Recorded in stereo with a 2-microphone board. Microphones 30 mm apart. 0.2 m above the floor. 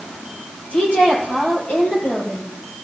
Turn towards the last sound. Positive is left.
turn(degrees=45)  # may be behind; listen again after turning